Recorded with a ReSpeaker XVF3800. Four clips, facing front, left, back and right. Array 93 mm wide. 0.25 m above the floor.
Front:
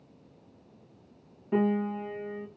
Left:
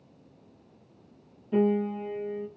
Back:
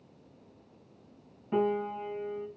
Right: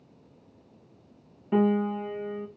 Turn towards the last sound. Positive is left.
turn(degrees=-90)